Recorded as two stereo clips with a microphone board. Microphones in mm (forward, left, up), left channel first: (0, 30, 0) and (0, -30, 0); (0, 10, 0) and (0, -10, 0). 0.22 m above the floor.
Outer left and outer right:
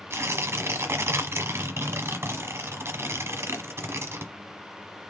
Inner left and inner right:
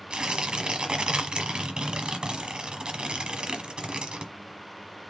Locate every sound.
0.1 s tearing paper: 45° right (ahead or behind), 1.2 m